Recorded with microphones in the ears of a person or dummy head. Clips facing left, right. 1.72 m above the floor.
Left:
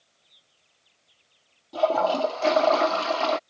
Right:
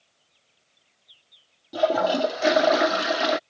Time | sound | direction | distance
1.7 | a toilet flushing | 15° right (ahead or behind) | ?